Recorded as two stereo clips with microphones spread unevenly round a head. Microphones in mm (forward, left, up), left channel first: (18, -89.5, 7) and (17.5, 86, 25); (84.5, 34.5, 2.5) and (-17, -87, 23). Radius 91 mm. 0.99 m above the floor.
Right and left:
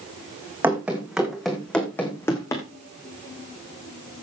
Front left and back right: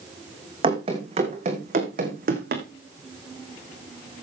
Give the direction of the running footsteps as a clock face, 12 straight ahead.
6 o'clock.